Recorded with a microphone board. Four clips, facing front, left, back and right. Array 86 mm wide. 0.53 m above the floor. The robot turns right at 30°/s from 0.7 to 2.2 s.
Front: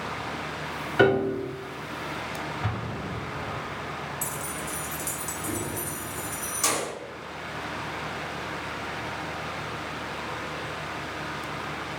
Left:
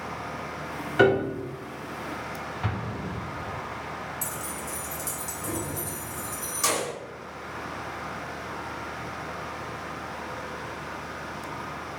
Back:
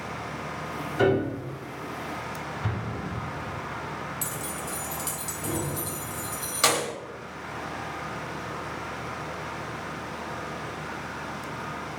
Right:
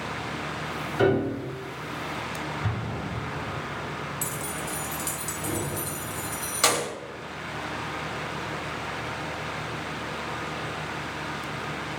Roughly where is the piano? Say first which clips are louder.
Left 2 dB, front 2 dB; ahead left.